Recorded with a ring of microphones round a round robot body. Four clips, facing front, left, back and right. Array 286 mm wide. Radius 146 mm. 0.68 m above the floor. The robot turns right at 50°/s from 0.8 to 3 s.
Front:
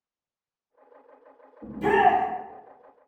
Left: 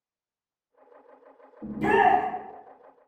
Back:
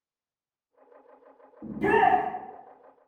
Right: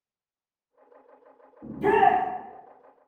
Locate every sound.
1.6 s a shout: 120° left, 1.0 m; by 2.2 s 150° left, 1.0 m